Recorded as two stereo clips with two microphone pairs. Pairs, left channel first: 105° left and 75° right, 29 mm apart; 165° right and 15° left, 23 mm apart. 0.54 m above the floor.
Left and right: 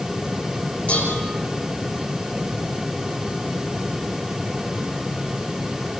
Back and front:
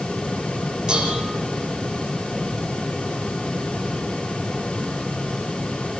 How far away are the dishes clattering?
About 7.5 m.